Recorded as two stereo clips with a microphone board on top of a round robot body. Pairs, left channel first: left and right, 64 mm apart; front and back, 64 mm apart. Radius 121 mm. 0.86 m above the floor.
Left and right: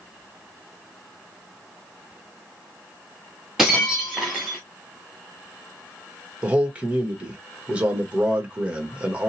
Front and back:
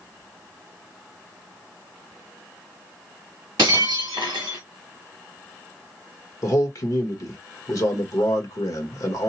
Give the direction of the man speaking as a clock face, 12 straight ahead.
1 o'clock.